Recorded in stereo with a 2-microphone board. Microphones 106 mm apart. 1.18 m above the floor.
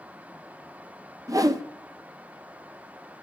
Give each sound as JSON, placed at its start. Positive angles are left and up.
{"t": 1.3, "sound": "a whoosh", "side_deg": -35, "distance_m": 0.7}